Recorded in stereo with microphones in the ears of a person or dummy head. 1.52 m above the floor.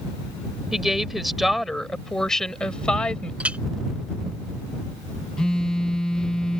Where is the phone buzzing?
5° left (ahead or behind).